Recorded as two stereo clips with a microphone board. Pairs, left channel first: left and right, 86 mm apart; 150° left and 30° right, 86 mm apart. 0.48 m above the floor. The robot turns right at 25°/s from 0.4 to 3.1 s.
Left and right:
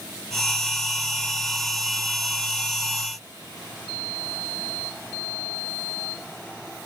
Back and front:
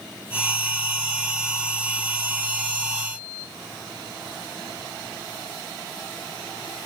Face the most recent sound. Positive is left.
No sound to turn to.